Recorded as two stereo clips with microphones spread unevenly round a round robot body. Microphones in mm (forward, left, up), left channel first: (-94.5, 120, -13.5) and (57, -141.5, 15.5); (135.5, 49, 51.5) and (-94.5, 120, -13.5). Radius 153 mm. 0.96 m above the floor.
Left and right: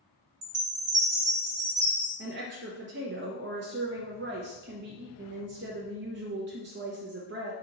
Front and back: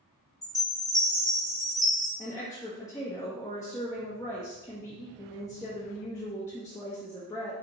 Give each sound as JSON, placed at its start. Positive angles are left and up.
{"t": 0.4, "sound": "a chime", "azimuth_deg": -100, "distance_m": 1.7}
{"t": 2.2, "sound": "a woman speaking", "azimuth_deg": -110, "distance_m": 0.6}